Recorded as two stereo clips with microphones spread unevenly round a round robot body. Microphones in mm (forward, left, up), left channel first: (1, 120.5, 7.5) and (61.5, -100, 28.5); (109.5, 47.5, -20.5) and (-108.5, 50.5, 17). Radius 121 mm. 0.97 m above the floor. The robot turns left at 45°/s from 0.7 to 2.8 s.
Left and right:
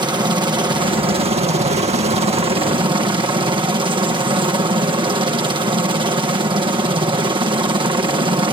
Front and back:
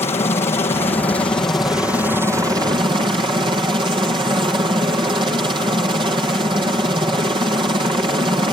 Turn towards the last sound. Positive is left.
turn(degrees=-120)